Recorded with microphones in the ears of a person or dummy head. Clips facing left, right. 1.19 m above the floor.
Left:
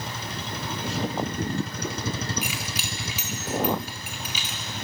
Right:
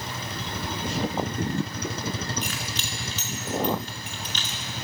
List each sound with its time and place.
2.4 s keys jangling: 10° left (ahead or behind), 2 m